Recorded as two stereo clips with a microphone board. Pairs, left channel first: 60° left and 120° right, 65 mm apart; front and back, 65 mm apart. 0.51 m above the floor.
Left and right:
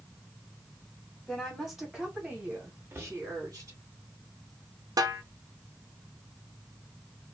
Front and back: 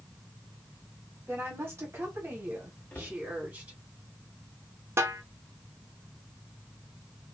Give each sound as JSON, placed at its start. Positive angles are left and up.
{"t": 1.3, "sound": "a woman speaking", "azimuth_deg": 140, "distance_m": 1.7}
{"t": 2.9, "sound": "a cupboard door", "azimuth_deg": -65, "distance_m": 0.9}
{"t": 5.0, "sound": "a snare drum", "azimuth_deg": -135, "distance_m": 0.5}